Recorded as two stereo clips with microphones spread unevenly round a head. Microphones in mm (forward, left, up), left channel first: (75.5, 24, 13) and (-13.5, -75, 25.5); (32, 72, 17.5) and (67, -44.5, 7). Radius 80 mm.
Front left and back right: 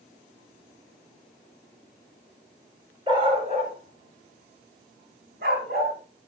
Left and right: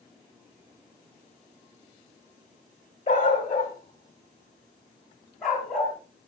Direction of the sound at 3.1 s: 165° left.